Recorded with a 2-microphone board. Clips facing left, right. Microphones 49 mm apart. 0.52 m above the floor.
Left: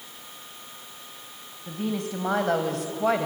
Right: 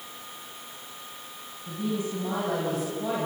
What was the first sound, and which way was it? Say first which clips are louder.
A woman speaking: even; 65° left (ahead or behind).